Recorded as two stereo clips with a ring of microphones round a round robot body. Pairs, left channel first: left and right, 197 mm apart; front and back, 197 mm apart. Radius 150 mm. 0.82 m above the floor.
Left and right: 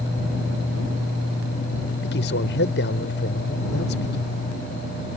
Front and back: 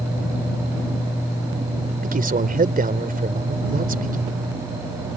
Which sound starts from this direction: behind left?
A man speaking, at 2.0 s.